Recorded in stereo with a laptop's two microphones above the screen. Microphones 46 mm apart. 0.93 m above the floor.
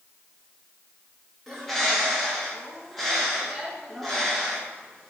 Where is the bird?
5° left (ahead or behind), 0.8 m.